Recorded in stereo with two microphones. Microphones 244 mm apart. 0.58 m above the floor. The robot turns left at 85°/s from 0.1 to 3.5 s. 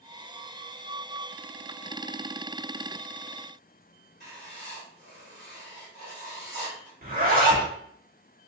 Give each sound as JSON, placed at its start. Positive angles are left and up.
{"t": 4.2, "sound": "writing", "side_deg": -50, "distance_m": 1.8}
{"t": 7.0, "sound": "a zipper", "side_deg": -40, "distance_m": 0.9}